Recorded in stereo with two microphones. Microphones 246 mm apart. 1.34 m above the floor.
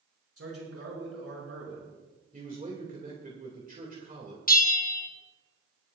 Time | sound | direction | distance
0.4 | a man speaking | 70° right (ahead or behind) | 5.5 m
2.3 | a man speaking | 35° right (ahead or behind) | 2 m
4.5 | a bell | 35° left (ahead or behind) | 1.1 m